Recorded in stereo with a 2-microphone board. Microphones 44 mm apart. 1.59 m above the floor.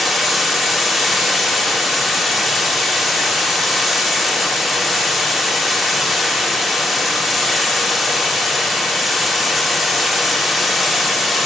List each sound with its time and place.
0.0 s running water: 5° right (ahead or behind), 3.5 m